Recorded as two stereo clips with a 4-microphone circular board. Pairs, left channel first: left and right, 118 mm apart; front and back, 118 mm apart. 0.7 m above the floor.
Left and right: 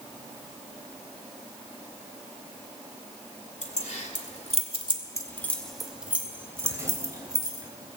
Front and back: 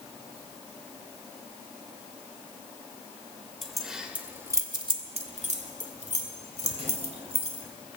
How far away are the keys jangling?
About 2.5 m.